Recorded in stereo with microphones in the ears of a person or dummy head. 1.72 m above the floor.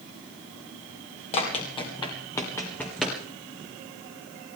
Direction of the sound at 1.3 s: 30° left (ahead or behind).